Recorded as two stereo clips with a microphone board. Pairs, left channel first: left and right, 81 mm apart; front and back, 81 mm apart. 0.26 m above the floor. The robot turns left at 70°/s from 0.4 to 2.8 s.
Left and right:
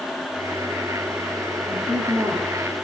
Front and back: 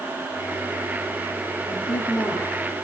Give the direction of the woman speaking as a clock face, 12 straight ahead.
12 o'clock.